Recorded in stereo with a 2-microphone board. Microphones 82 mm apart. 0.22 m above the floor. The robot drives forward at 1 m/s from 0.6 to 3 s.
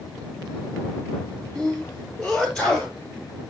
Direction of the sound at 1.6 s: 10° left (ahead or behind).